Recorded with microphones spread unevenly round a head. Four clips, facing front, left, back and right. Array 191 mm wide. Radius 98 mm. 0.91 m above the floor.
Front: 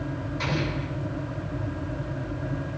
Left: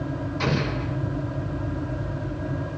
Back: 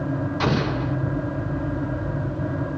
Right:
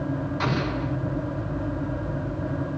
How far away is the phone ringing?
I don't hear a phone ringing.